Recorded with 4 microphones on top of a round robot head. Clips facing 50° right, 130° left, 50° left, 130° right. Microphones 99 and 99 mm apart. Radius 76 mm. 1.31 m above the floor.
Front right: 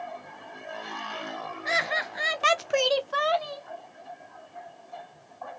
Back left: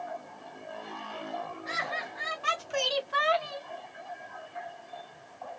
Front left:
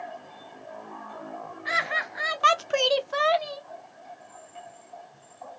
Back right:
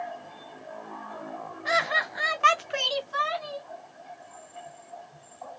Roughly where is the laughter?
Right.